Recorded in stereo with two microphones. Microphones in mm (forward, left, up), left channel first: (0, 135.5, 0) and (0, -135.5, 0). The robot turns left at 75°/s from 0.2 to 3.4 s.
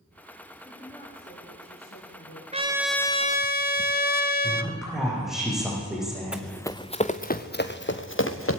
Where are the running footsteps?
5° right (ahead or behind), 1.1 m; by 8.6 s 50° left (ahead or behind), 2.5 m.